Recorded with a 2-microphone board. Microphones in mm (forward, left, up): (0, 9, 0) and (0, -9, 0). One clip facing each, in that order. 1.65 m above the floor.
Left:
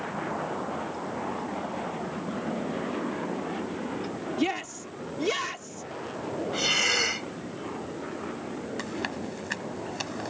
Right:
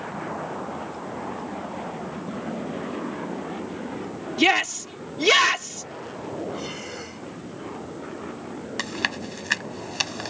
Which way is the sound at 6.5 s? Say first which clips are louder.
Left 9 dB; 55° left (ahead or behind).